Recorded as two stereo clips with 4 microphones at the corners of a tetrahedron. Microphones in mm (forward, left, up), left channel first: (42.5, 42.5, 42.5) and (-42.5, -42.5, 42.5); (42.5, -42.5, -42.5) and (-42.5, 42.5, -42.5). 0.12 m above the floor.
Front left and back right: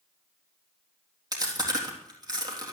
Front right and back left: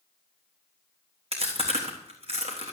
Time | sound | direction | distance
1.3 | chewing | 170° left | 3.5 m